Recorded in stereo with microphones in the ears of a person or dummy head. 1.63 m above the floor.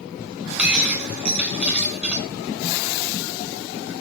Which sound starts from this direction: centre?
Breaking glass, at 0.6 s.